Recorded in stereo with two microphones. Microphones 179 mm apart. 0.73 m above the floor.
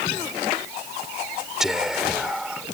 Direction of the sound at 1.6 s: Centre (ahead or behind).